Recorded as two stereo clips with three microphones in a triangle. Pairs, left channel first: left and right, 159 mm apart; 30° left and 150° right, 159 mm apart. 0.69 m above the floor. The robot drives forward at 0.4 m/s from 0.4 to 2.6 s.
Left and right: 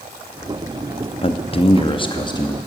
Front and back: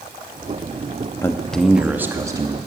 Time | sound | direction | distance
1.2 | a man speaking | 90° left | 0.5 m